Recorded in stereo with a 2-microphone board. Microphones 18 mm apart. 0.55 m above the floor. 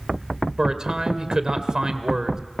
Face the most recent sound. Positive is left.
turn(degrees=-45)  # may be behind; listen again after turning